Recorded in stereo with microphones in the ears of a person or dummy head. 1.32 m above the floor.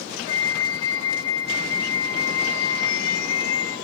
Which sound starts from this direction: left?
A flute, at 0.3 s.